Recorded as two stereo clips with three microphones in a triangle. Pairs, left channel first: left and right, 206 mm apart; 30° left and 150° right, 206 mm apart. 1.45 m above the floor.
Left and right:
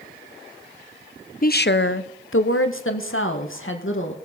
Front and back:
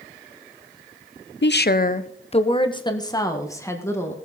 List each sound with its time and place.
1.4 s a woman speaking: 50° left, 0.5 m; by 4.2 s 110° left, 2.0 m